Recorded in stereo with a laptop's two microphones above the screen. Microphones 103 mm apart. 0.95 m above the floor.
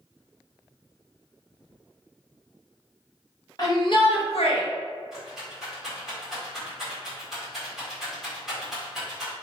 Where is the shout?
40° left (ahead or behind), 0.9 m; by 4.6 s 65° left (ahead or behind), 0.8 m.